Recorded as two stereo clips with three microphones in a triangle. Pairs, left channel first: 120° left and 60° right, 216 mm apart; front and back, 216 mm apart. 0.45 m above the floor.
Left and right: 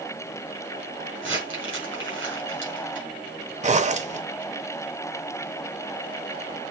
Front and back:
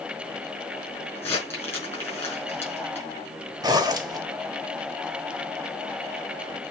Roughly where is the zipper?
Right.